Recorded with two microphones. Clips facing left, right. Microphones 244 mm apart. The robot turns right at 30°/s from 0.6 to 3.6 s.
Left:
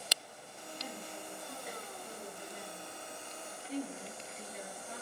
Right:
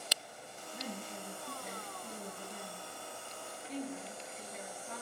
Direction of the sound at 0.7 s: 80° right.